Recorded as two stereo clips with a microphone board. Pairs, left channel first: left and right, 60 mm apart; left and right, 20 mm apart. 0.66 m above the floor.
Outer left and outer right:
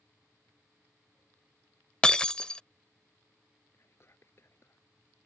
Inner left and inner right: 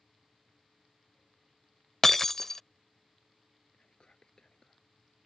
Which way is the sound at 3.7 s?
45° left (ahead or behind).